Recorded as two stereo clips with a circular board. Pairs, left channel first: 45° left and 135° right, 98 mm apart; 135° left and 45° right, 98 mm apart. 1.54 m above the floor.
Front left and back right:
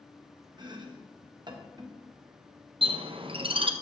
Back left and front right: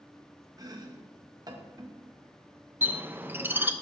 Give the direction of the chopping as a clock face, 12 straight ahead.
3 o'clock.